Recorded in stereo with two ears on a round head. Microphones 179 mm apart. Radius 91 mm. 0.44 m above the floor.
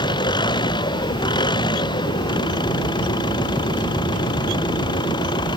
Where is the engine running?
25° left (ahead or behind).